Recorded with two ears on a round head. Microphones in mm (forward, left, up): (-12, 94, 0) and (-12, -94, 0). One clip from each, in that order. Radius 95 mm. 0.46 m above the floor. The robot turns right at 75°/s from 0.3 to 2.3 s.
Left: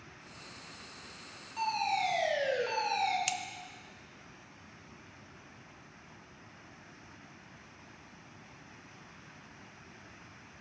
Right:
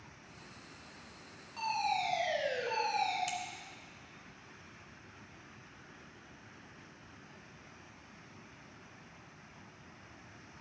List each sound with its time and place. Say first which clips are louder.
1.6 s a fire alarm: left 2 dB; 5° right, 3 m; by 3.2 s 50° left, 3 m
3.3 s scissors: left 4 dB; 40° left (ahead or behind), 0.5 m